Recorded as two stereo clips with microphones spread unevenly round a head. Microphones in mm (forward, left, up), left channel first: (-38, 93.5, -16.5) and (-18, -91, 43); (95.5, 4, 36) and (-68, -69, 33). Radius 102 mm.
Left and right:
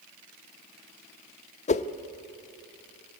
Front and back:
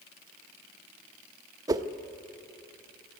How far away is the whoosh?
About 0.7 m.